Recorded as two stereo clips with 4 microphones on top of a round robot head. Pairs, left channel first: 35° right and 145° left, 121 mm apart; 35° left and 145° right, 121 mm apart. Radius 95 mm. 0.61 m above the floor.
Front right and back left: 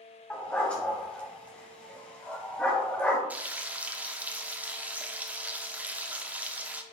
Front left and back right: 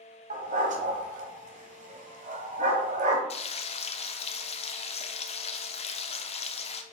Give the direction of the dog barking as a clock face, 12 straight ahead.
4 o'clock.